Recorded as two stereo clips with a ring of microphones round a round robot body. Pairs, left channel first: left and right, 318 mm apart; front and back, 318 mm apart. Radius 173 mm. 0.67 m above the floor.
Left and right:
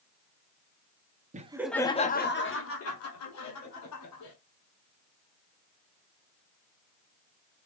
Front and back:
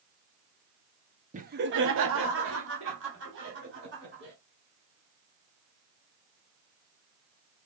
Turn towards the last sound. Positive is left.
turn(degrees=120)